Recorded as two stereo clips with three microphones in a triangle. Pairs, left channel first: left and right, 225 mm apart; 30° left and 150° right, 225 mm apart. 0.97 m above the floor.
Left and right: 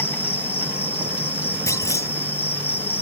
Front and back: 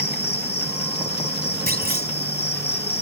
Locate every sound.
0.0 s an insect: 15° left
1.7 s a clunk: 165° left